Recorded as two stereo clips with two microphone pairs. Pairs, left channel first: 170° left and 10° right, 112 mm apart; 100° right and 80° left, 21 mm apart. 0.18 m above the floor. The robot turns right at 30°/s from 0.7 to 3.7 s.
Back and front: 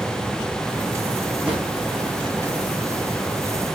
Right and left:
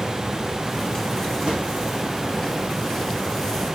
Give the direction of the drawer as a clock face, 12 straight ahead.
10 o'clock.